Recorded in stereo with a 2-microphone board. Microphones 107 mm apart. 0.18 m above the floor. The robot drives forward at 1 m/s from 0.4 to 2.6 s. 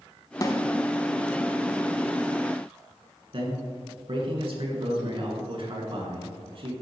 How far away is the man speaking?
About 2.5 m.